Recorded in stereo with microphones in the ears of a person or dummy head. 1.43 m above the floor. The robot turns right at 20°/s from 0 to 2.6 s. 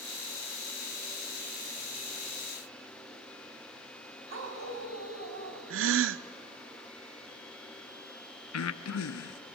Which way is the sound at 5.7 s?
65° right (ahead or behind).